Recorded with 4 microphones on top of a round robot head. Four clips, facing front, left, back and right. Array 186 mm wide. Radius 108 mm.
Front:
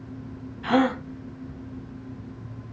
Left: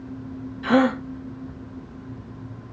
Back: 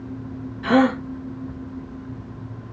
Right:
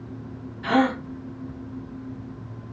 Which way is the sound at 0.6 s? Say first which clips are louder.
Left 2 dB, back 4 dB; 160° left.